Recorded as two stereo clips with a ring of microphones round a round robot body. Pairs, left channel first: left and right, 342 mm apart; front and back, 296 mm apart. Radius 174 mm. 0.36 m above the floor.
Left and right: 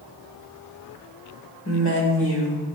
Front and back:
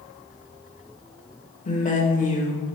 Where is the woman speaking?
55° left, 1.1 m.